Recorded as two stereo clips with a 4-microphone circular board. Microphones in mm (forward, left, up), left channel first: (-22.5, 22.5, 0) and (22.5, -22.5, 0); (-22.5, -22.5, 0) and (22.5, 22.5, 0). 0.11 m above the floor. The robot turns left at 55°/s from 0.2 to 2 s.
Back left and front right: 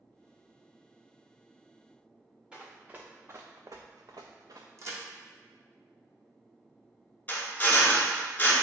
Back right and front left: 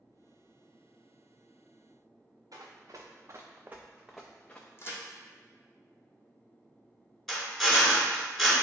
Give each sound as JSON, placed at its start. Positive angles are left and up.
{"t": 2.5, "sound": "running footsteps", "azimuth_deg": 30, "distance_m": 0.9}
{"t": 4.8, "sound": "a crack", "azimuth_deg": -85, "distance_m": 0.9}
{"t": 7.3, "sound": "a drill", "azimuth_deg": 140, "distance_m": 0.7}